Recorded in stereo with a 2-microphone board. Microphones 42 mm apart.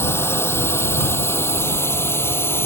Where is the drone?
80° left; by 2.7 s 75° left (ahead or behind).